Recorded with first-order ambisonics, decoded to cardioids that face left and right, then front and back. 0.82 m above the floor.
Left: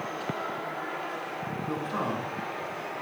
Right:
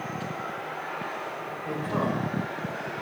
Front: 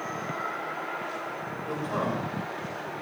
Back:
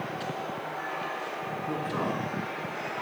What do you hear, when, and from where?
1.6 s a man speaking: 45° right, 3 m